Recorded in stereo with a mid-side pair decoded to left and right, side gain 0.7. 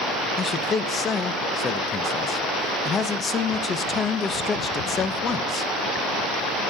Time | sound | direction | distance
0.4 | a man speaking | 25° left | 0.7 m